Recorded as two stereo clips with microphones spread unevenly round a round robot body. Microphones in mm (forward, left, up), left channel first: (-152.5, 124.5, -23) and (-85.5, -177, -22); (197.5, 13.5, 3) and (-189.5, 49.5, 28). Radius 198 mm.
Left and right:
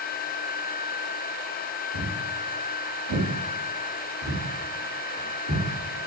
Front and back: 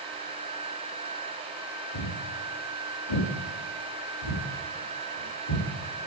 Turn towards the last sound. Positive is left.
turn(degrees=-25)